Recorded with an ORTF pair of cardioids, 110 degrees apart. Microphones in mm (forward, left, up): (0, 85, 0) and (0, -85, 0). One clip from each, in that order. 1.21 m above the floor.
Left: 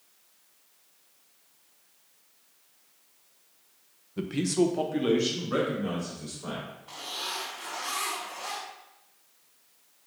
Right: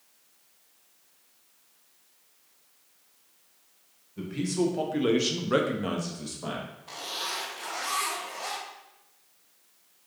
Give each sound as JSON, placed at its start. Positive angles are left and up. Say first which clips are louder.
{"t": 4.2, "sound": "a man speaking", "louder": "left 3 dB", "azimuth_deg": 40, "distance_m": 0.7}
{"t": 6.9, "sound": "a zipper", "louder": "right 1 dB", "azimuth_deg": -45, "distance_m": 1.7}